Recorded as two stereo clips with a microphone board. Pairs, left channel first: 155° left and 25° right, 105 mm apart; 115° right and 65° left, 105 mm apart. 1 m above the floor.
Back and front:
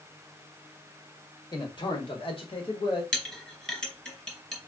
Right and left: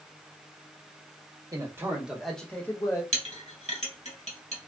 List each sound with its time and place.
1.5 s a man speaking: 120° left, 1.3 m; by 3.0 s 170° right, 1.5 m
3.1 s a clink: 120° right, 2.5 m